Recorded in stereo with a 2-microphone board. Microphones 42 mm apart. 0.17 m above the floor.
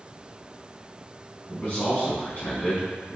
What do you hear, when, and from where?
1.5 s a man speaking: 35° left (ahead or behind), 1.5 m